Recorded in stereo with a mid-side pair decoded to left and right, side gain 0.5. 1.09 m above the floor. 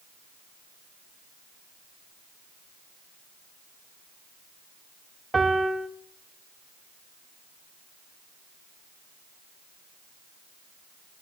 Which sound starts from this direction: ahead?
A piano, at 5.3 s.